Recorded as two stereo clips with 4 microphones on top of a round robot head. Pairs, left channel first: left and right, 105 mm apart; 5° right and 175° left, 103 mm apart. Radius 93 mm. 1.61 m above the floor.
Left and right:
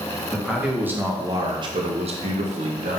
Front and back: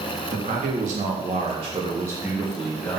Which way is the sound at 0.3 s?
175° right.